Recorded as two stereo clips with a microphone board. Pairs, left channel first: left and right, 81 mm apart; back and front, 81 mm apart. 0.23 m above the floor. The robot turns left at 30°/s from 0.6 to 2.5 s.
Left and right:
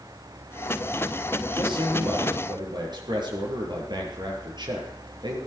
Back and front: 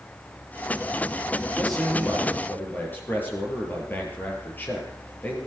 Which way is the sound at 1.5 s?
85° right.